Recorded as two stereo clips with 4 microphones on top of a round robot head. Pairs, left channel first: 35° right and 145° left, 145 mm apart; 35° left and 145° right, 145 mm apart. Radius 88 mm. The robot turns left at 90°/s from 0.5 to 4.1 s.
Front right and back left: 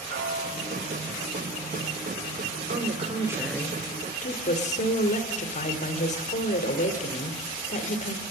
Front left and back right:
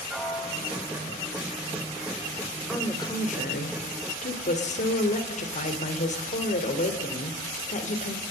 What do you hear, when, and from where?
0.1 s a piano: 125° left, 2.5 m; by 1.2 s 65° left, 2.5 m
2.7 s a woman speaking: 125° left, 2.5 m; by 8.2 s straight ahead, 2.5 m